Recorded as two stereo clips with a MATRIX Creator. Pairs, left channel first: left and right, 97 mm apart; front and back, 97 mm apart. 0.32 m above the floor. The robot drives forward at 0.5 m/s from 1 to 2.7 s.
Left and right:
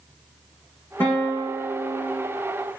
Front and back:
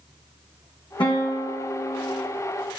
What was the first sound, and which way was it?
A guitar, 25° left.